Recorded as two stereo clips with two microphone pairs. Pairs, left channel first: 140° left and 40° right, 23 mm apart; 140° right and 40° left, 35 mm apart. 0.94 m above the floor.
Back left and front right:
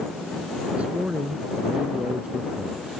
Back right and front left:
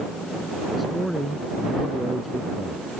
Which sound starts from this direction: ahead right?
A man speaking, at 0.8 s.